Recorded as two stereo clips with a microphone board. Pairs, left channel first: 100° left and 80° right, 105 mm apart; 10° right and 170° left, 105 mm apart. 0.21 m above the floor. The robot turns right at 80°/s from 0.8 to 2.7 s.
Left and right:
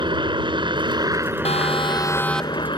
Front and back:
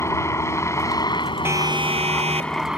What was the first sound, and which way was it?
A helicopter, 65° right.